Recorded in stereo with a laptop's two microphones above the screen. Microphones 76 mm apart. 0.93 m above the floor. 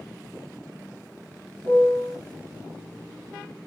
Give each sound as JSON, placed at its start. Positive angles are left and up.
{"t": 1.6, "sound": "a piano", "side_deg": -60, "distance_m": 2.0}